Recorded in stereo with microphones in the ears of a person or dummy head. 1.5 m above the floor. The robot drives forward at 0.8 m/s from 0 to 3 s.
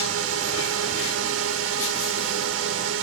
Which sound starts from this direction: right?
A drone, at 0.0 s.